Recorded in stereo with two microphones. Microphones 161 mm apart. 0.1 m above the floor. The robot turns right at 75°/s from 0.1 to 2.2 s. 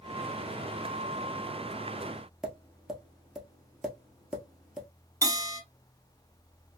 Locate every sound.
2.4 s tapping: 5° right (ahead or behind), 1.0 m
5.2 s a bell: 20° right (ahead or behind), 1.5 m